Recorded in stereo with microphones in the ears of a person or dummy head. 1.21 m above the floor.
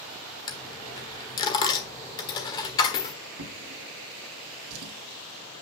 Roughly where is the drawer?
Right.